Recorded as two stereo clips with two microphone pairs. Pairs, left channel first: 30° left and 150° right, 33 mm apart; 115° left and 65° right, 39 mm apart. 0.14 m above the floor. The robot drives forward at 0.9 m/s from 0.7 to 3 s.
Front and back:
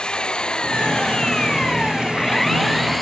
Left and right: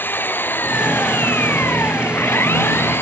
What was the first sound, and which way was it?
An engine running, 90° left.